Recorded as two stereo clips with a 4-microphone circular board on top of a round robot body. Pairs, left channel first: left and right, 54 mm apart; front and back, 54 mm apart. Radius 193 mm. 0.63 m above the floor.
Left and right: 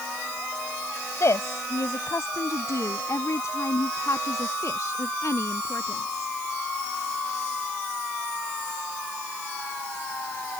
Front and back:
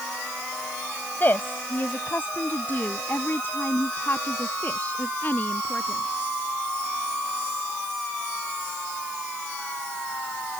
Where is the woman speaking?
55° left.